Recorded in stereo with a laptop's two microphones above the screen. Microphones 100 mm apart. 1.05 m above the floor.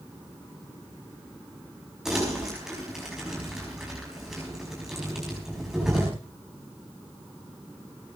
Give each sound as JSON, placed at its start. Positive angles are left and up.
{"t": 2.0, "sound": "crumpling", "side_deg": -5, "distance_m": 5.5}